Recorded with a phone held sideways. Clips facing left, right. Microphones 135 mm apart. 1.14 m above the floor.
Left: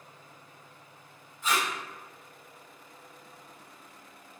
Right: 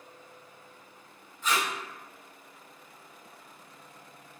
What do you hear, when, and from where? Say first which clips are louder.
1.4 s tape being pulled: even; 5° left (ahead or behind), 1.5 m